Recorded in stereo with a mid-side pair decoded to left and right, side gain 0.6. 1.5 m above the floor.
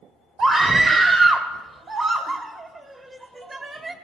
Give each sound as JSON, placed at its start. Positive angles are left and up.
{"t": 0.4, "sound": "a scream", "azimuth_deg": -25, "distance_m": 1.4}